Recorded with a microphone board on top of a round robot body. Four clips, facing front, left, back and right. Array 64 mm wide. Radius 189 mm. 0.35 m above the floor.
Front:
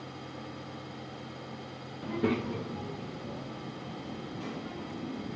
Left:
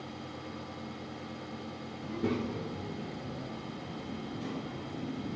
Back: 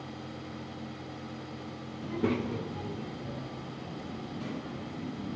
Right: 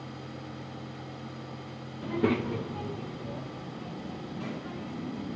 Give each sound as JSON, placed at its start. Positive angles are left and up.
{"t": 2.0, "sound": "a child speaking", "azimuth_deg": -75, "distance_m": 0.6}